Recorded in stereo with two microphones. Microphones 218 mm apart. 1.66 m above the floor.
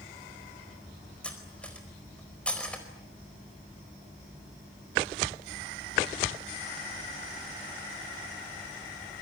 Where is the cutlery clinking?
5° left (ahead or behind), 4.5 m.